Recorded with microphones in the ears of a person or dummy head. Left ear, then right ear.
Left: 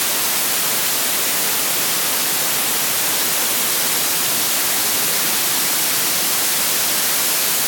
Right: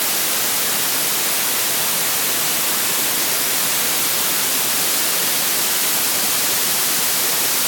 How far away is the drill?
I don't hear a drill.